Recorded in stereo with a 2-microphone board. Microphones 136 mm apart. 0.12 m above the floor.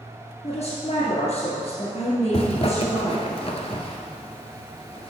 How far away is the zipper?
About 0.8 m.